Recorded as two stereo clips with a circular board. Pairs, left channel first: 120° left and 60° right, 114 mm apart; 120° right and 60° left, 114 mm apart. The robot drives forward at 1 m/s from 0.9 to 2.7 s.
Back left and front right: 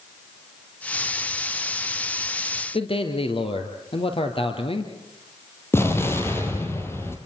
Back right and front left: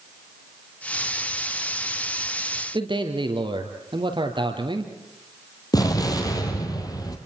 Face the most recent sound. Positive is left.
turn(degrees=-175)